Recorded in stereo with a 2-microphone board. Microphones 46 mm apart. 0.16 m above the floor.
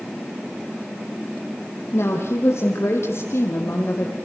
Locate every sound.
1.9 s a woman speaking: 75° left (ahead or behind), 7 m; by 4.2 s 70° left (ahead or behind), 5.5 m